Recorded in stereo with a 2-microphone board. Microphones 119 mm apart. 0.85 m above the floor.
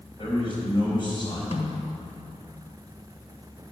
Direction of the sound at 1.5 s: 60° left (ahead or behind).